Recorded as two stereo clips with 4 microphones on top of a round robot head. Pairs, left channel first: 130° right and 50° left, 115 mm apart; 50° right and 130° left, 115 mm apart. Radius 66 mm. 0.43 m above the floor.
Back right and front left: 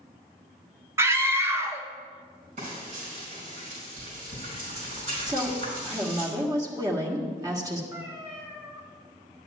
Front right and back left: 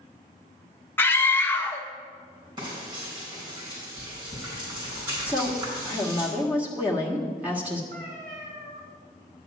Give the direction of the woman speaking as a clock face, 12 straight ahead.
10 o'clock.